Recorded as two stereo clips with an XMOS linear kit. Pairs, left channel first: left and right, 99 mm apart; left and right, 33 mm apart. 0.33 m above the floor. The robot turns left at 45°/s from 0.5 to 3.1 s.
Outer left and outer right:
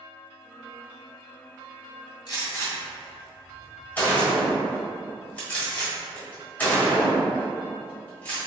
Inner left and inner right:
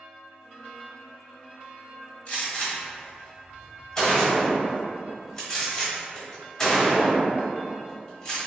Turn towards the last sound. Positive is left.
turn(degrees=15)  # may be behind; listen again after turning